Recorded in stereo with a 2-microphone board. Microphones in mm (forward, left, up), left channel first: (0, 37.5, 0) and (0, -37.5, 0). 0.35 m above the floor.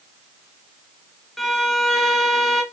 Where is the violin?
Centre (ahead or behind), 0.7 m.